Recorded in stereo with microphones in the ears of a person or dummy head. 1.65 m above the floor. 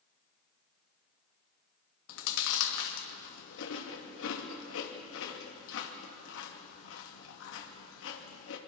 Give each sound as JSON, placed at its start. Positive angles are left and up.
{"t": 2.1, "sound": "chewing", "side_deg": 75, "distance_m": 2.5}